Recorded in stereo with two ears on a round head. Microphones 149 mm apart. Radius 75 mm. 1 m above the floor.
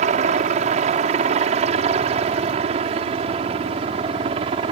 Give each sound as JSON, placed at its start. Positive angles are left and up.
{"t": 0.0, "sound": "a helicopter", "side_deg": -45}